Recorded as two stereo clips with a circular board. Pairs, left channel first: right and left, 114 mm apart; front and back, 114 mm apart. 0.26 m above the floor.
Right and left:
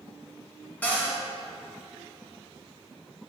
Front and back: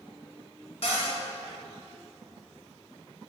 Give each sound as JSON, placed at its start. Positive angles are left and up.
{"t": 0.8, "sound": "a cupboard door", "azimuth_deg": -15, "distance_m": 2.0}